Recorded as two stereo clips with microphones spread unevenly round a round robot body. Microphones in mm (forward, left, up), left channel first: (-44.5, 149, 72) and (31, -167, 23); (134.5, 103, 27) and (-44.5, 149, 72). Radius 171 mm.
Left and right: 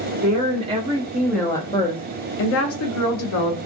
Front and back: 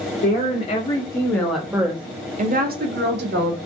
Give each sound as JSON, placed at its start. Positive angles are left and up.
{"t": 0.2, "sound": "a woman speaking", "azimuth_deg": -25, "distance_m": 1.1}